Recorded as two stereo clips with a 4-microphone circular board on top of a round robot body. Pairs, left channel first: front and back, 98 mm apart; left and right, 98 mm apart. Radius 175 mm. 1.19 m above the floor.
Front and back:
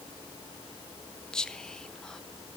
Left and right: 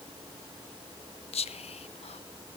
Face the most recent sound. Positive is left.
turn(degrees=85)